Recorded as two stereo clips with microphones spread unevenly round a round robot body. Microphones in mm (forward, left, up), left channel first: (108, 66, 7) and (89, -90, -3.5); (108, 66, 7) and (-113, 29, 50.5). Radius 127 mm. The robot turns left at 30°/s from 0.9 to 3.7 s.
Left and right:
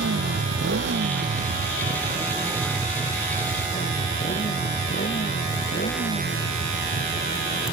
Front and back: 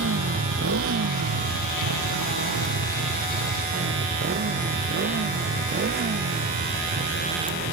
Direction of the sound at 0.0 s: 125° right.